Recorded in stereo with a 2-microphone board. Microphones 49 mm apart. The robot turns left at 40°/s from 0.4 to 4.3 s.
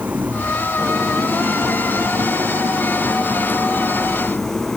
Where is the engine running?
35° right; by 4.8 s 170° left.